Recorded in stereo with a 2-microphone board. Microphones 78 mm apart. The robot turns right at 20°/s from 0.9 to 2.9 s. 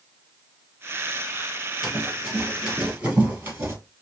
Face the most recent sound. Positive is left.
turn(degrees=-30)  # may be behind; listen again after turning